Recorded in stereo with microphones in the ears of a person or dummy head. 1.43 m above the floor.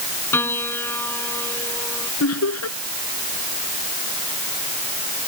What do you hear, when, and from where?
0.3 s a piano: 10° left (ahead or behind)
2.2 s laughter: 90° left